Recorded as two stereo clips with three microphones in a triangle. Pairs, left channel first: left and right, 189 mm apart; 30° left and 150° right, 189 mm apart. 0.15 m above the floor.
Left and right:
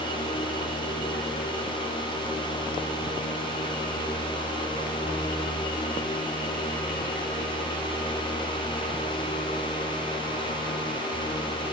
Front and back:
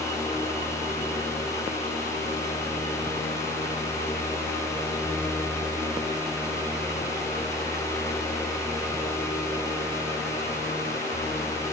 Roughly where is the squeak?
No squeak in this recording.